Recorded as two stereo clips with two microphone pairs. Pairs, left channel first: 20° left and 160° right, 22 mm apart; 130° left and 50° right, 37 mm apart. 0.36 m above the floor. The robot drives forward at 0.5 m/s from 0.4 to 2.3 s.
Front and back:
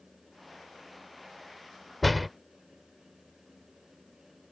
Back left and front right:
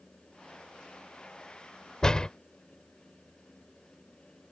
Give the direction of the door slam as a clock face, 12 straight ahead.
9 o'clock.